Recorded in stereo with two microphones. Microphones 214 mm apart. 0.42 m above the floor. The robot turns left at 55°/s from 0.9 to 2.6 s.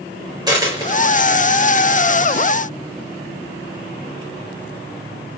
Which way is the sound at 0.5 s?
20° right (ahead or behind).